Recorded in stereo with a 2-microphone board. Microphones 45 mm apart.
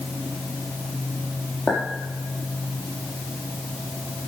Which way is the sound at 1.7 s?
35° left (ahead or behind).